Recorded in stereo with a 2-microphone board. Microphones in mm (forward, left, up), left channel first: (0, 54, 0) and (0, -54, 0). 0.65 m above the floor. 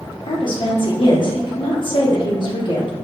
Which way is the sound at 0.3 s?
50° left (ahead or behind).